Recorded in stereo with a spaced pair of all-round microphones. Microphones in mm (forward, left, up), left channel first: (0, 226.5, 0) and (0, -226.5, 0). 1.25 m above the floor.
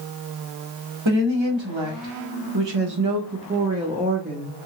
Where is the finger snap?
No finger snap in this recording.